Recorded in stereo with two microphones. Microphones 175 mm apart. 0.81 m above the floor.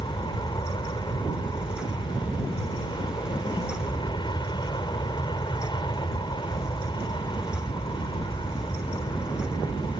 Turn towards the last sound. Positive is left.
turn(degrees=25)  # may be behind; listen again after turning